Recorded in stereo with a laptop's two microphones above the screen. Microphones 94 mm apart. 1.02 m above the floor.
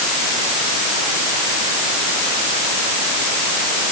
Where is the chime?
No chime in this recording.